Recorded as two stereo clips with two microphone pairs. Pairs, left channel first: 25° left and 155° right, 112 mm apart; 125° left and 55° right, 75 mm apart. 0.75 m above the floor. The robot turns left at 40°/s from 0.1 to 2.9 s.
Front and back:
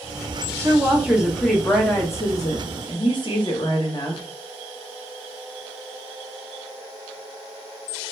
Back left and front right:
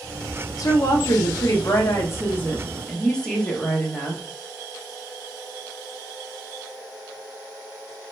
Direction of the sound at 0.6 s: 145° left.